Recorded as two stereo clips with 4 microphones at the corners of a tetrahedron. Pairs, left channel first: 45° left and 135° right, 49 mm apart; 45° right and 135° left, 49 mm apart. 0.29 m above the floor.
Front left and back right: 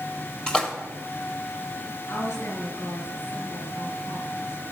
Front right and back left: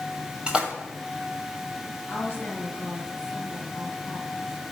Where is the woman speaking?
15° left, 4 m.